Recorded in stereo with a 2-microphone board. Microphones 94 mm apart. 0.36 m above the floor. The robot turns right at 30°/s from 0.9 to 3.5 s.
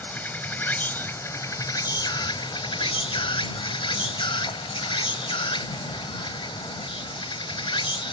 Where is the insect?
25° left; by 8.1 s 100° left.